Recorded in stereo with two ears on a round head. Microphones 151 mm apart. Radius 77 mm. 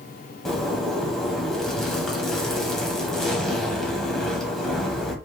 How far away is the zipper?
About 1.4 m.